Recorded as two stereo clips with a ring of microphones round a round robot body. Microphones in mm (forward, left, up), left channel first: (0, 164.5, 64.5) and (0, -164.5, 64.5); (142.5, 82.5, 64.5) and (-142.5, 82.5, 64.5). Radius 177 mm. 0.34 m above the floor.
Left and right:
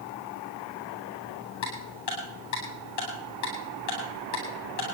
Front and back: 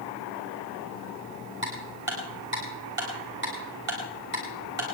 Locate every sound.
1.6 s ticking: 130° left, 7.5 m